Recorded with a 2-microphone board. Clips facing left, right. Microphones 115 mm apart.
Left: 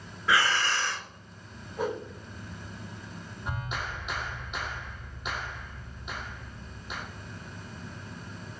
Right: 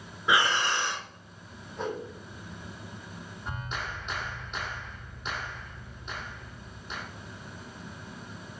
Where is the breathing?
20° right (ahead or behind), 0.7 m.